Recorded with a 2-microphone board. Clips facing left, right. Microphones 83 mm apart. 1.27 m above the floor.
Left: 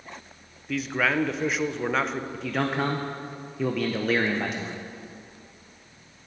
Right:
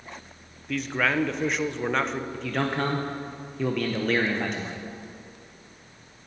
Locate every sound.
0.7 s a man speaking: centre (ahead or behind), 0.6 m
2.3 s a man speaking: 5° left (ahead or behind), 0.6 m